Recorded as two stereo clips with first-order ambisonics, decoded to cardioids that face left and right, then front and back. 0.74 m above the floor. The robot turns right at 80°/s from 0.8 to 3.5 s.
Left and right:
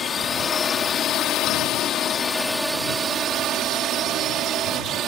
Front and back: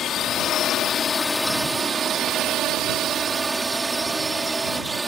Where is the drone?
35° left; by 5.1 s 110° right.